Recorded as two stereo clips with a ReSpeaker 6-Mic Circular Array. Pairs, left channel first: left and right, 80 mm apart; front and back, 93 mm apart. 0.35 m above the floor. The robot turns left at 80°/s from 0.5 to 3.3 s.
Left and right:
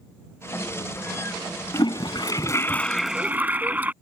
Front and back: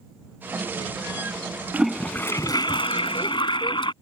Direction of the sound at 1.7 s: 105° left.